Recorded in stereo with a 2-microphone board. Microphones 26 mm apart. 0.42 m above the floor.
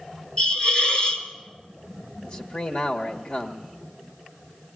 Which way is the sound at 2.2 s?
45° left (ahead or behind).